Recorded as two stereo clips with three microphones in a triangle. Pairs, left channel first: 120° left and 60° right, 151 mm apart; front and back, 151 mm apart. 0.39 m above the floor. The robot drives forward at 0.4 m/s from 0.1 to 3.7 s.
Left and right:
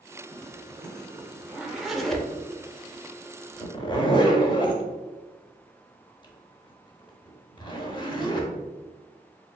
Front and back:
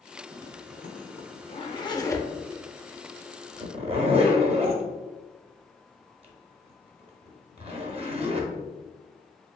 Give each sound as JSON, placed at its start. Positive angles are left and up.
{"t": 0.3, "sound": "a zipper", "azimuth_deg": 10, "distance_m": 1.0}